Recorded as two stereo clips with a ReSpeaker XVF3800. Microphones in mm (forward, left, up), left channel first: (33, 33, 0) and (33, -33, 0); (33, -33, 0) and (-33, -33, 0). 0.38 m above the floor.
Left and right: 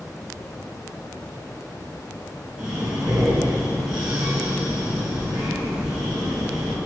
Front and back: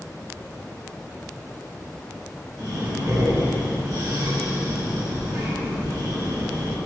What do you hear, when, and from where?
2.6 s breathing: 165° right, 2.5 m